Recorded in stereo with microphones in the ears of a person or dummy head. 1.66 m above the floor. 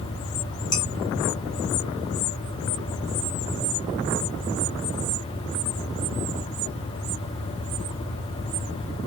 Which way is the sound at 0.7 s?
15° left (ahead or behind).